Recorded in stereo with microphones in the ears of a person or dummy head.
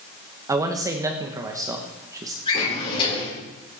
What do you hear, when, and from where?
0.5 s a man speaking: 15° right (ahead or behind), 1.3 m
2.5 s a drawer: 25° left (ahead or behind), 10 m